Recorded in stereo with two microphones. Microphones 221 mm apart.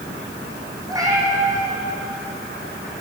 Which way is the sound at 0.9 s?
15° right (ahead or behind).